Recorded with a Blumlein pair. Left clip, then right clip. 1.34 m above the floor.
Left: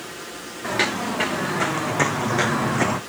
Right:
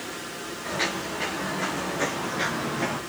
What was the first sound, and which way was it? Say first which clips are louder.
Footsteps: left 6 dB; 60° left.